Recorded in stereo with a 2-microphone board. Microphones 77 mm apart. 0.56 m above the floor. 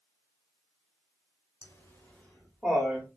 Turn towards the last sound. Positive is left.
turn(degrees=-20)  # may be behind; listen again after turning